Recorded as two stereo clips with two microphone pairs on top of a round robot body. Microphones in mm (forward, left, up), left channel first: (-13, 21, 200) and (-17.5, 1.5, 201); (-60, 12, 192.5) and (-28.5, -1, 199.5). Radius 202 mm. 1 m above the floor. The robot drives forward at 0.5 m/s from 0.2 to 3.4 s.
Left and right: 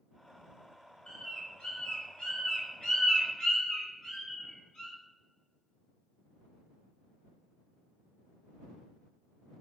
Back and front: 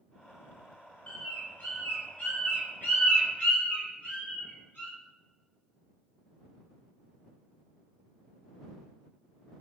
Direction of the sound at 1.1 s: 110° left.